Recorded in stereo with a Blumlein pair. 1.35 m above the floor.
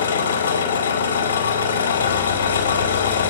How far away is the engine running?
About 4.5 m.